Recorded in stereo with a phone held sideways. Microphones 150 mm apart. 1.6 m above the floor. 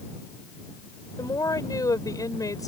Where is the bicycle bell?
I don't hear a bicycle bell.